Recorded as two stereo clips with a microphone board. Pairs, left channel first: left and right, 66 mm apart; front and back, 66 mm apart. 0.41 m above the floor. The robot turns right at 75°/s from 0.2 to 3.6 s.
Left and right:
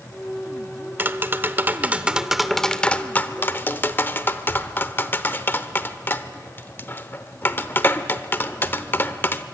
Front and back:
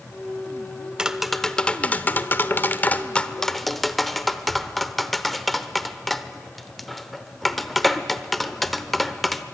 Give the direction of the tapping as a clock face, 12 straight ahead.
4 o'clock.